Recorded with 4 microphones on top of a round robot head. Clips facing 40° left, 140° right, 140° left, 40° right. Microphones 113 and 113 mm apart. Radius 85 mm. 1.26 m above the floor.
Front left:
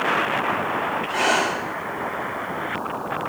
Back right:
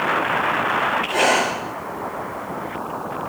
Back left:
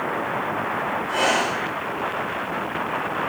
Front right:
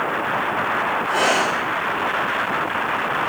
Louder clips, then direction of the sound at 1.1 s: Back right 2 dB, front right 2 dB; 95° right.